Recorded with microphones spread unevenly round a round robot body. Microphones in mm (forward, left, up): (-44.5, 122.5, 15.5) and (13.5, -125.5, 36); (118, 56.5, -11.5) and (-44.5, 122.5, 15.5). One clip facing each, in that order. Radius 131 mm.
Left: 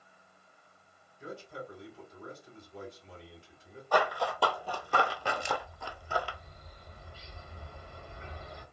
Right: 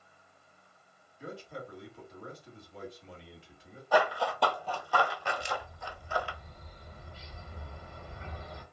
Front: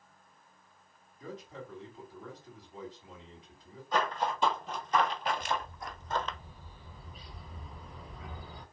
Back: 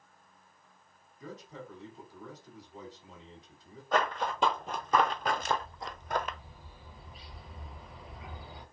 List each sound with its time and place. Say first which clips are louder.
1.2 s a man speaking: even, front 1 dB; 95° right, 1.5 m
3.9 s running footsteps: right 2 dB, back 1 dB; 160° right, 0.9 m; by 6.4 s 80° left, 0.7 m
5.4 s a bird: left 2 dB, back 2 dB; 110° right, 1.5 m